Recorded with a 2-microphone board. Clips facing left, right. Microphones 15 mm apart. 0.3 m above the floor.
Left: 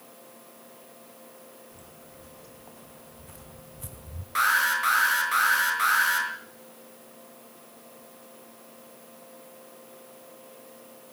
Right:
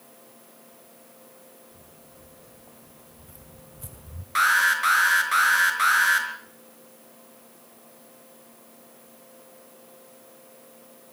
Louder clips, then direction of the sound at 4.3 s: Right 3 dB; 20° right (ahead or behind).